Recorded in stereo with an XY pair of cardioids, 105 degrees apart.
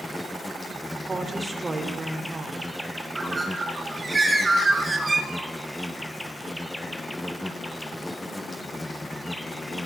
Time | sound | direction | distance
0.0 | an insect | 5° left | 1.1 m
1.1 | a woman speaking | 25° right | 4.5 m
3.1 | a bird | 25° right | 4 m